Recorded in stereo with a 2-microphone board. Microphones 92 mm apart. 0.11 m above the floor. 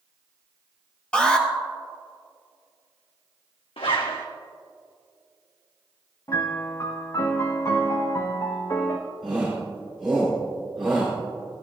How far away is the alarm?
About 2.5 m.